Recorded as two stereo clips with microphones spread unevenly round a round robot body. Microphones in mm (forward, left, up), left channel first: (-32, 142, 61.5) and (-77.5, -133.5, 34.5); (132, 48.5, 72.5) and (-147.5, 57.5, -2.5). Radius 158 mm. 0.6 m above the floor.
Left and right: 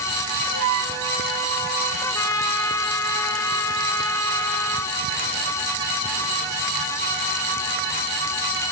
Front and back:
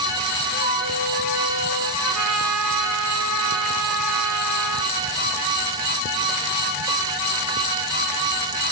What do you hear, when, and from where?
0.5 s a flute: 105° right, 4 m
2.0 s a trumpet: 160° left, 2.5 m